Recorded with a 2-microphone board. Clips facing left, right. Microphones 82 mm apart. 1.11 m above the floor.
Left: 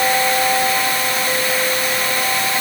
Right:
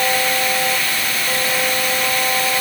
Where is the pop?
No pop in this recording.